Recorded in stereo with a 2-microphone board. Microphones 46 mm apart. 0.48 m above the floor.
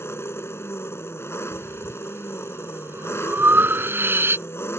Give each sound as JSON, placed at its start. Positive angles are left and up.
{"t": 0.0, "sound": "an engine running", "side_deg": 70}
{"t": 1.5, "sound": "breathing", "side_deg": -55}